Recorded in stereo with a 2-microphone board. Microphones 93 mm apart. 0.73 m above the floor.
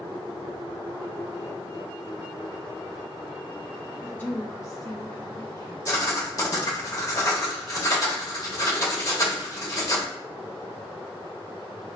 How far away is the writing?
About 0.9 m.